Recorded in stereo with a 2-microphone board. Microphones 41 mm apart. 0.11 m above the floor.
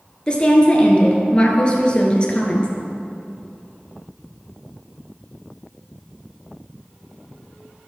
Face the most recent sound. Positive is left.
turn(degrees=25)  # may be behind; listen again after turning